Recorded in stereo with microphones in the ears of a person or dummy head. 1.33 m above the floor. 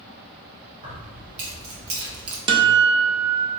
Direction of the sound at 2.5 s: 25° right (ahead or behind).